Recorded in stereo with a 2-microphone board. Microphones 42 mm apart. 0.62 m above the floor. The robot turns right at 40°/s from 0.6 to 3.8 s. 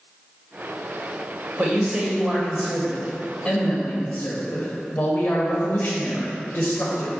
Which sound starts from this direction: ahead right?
A man speaking, at 1.6 s.